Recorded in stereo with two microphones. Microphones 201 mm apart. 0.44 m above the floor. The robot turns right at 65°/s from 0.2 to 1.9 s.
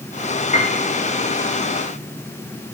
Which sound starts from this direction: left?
A piano, at 0.5 s.